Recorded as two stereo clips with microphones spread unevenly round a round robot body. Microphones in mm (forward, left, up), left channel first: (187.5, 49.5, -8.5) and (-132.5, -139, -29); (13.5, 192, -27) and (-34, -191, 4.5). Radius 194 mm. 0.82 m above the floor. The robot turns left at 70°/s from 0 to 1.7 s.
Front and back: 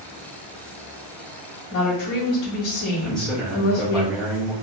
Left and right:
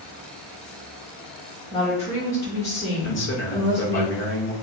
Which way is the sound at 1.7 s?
5° left.